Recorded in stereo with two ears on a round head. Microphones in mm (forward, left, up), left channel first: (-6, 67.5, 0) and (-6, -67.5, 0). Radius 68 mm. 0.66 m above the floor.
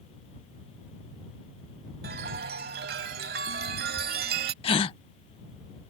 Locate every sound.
2.0 s a chime: 65° right (ahead or behind)
4.6 s a gasp: 35° left (ahead or behind)